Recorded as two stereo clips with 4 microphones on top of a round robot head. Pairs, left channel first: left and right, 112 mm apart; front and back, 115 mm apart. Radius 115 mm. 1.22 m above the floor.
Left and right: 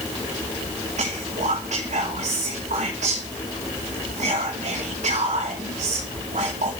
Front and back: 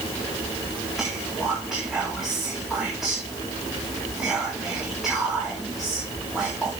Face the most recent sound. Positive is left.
turn(degrees=-95)